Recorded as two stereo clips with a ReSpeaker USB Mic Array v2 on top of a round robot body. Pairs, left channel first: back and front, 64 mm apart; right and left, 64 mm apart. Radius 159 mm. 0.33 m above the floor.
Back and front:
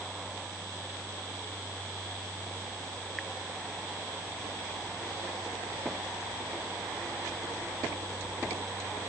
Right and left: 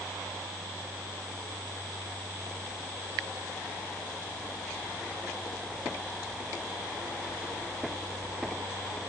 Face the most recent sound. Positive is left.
No sound to turn to.